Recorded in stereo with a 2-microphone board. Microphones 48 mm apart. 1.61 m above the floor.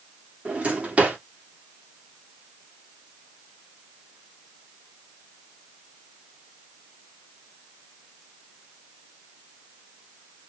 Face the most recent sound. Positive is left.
turn(degrees=-30)  # may be behind; listen again after turning